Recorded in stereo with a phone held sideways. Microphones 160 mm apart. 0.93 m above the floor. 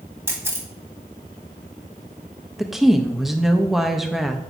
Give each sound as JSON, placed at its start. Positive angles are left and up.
{"t": 0.3, "sound": "a camera shutter", "side_deg": -15, "distance_m": 1.5}
{"t": 2.6, "sound": "a woman speaking", "side_deg": 0, "distance_m": 0.5}